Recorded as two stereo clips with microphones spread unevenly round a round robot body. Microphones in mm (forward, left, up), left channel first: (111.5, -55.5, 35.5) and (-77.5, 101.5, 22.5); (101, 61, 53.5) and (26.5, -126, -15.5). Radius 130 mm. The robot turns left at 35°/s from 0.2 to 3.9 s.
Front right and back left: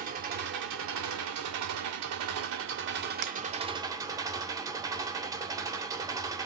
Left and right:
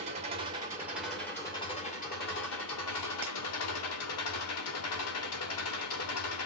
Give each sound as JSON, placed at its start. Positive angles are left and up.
{"t": 0.0, "sound": "an engine running", "azimuth_deg": -165, "distance_m": 1.3}
{"t": 3.2, "sound": "breaking glass", "azimuth_deg": 160, "distance_m": 0.9}